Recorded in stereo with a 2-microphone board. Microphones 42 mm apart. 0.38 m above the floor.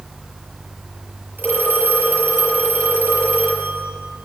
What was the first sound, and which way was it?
A phone ringing, 50° right (ahead or behind).